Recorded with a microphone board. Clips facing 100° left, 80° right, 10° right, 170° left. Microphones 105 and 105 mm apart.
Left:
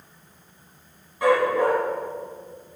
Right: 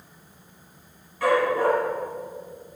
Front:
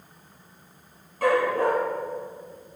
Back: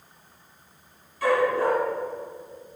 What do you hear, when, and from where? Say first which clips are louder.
1.2 s a dog barking: left 1 dB, even; 30° left, 5.5 m